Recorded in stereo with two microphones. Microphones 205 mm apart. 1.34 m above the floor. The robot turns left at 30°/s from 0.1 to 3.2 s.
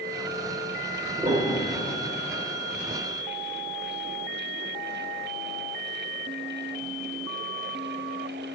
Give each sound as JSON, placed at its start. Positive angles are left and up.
{"t": 1.2, "sound": "a piano", "side_deg": -30, "distance_m": 2.5}